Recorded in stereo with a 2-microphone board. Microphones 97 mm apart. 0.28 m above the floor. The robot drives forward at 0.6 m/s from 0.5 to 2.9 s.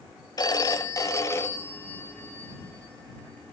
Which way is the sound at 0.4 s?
45° left (ahead or behind).